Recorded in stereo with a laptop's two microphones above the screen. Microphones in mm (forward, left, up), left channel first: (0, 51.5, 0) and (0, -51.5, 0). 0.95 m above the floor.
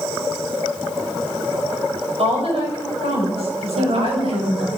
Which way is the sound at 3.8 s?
70° right (ahead or behind).